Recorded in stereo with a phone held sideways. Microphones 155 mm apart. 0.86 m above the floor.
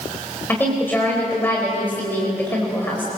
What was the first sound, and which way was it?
A woman speaking, 15° left (ahead or behind).